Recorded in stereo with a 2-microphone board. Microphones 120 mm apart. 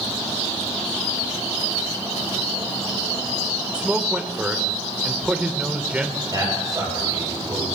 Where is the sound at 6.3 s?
30° right (ahead or behind), 7.5 m.